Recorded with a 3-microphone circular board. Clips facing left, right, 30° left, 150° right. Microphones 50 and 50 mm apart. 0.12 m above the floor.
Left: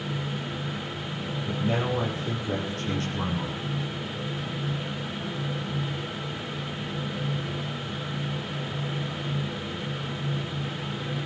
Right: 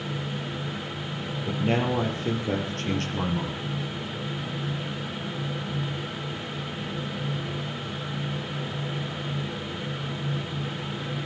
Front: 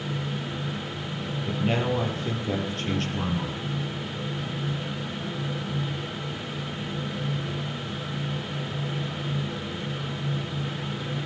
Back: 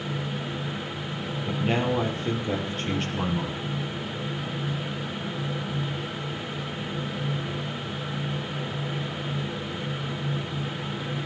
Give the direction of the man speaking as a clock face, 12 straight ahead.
2 o'clock.